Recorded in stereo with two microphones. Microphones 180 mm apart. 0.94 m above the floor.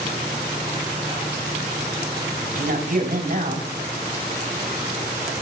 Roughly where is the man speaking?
Right.